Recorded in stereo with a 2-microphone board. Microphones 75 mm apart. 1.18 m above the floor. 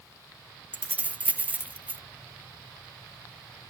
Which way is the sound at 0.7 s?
20° right (ahead or behind).